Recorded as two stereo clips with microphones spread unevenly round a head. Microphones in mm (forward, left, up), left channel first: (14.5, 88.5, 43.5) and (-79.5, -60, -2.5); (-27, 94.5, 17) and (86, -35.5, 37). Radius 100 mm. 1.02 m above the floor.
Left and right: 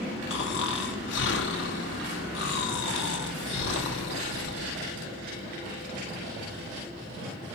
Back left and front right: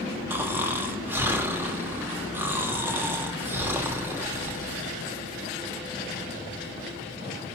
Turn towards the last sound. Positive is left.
turn(degrees=30)